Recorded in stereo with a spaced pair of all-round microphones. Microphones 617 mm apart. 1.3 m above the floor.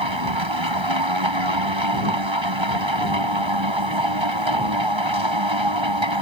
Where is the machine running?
45° right (ahead or behind).